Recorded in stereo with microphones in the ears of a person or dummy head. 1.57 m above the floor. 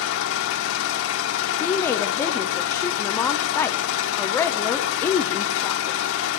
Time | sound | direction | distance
0.0 | an engine running | 80° left | 1.8 m
1.6 | a woman speaking | 15° left (ahead or behind) | 0.8 m